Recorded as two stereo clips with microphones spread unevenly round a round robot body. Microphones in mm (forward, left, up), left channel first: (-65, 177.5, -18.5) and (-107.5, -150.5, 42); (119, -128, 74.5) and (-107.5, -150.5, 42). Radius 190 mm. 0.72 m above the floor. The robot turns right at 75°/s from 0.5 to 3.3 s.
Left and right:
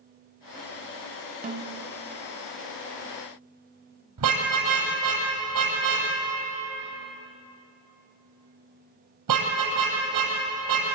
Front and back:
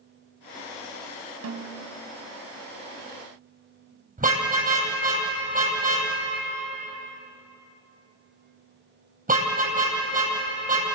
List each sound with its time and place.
1.4 s a snare drum: 160° right, 2.5 m; by 1.7 s 140° right, 2.5 m
4.2 s a car horn: 120° right, 9.5 m